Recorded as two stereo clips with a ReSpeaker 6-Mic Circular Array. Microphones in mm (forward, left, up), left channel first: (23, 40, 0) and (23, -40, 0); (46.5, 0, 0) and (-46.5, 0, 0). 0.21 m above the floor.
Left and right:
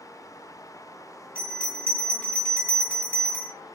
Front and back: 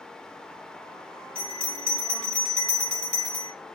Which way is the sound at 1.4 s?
55° left.